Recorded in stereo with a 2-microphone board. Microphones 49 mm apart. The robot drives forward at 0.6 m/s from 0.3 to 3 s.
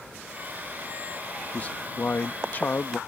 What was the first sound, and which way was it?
A man speaking, 30° left (ahead or behind).